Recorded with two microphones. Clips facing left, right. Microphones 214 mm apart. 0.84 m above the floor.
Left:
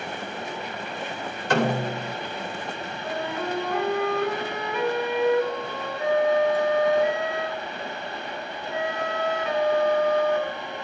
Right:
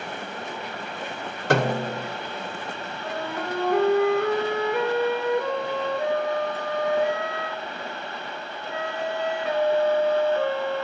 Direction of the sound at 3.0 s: 55° right (ahead or behind).